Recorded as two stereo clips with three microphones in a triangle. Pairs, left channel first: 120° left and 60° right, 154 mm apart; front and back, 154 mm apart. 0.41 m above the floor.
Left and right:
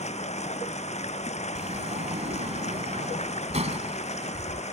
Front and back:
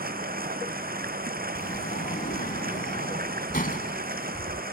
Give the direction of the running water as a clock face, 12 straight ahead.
7 o'clock.